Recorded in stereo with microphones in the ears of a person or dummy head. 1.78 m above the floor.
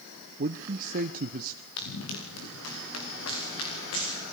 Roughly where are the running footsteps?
Left.